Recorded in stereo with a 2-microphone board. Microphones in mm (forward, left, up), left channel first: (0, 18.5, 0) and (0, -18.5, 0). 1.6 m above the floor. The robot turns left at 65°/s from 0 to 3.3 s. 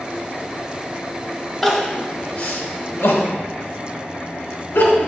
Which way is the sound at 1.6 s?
10° right (ahead or behind).